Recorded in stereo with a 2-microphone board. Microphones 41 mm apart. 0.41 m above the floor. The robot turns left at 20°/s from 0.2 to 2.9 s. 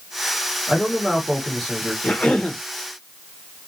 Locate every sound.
0.7 s a man speaking: 15° left (ahead or behind), 1.2 m; by 1.9 s 10° left (ahead or behind), 1.2 m
2.0 s a cough: 30° left (ahead or behind), 0.8 m